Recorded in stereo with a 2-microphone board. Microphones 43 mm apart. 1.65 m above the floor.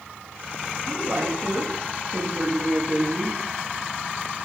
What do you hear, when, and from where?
0.8 s a woman speaking: 50° right (ahead or behind), 3.5 m; by 3.4 s 25° right (ahead or behind), 3.5 m